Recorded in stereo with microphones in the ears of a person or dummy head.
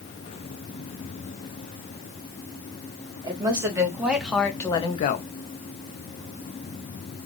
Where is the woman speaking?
20° right (ahead or behind), 1.4 m; by 5.2 s 50° left (ahead or behind), 0.6 m.